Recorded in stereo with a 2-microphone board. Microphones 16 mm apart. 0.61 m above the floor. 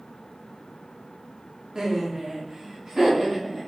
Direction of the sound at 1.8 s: 40° right (ahead or behind).